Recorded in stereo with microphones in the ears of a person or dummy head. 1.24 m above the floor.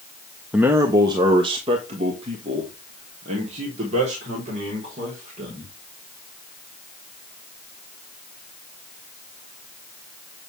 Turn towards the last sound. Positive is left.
turn(degrees=-45)  # may be behind; listen again after turning